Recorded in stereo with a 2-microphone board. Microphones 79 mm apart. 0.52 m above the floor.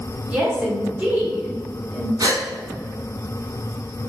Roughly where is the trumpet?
I don't hear a trumpet.